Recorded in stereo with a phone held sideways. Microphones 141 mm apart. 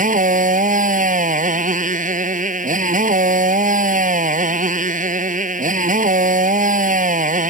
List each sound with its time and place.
0.0 s a motorcycle: 70° right (ahead or behind)